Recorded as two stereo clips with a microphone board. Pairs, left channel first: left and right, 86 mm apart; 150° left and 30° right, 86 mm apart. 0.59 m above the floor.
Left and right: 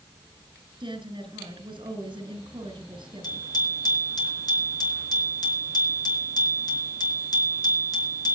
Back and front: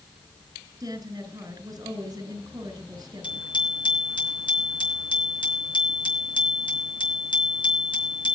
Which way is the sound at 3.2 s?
125° left.